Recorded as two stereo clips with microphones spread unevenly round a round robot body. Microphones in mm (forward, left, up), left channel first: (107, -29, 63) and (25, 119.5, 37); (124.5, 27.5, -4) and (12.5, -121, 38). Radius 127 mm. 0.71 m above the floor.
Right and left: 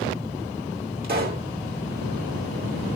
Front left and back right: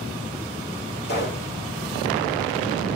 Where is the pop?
110° left, 2.5 m.